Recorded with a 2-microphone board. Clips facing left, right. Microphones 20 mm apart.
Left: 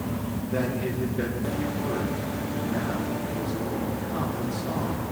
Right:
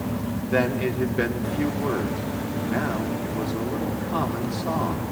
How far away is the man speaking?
About 3 m.